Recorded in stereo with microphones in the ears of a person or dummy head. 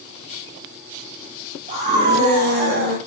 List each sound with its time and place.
1.7 s a scream: 35° right (ahead or behind), 4 m; by 3.0 s 60° right (ahead or behind), 3 m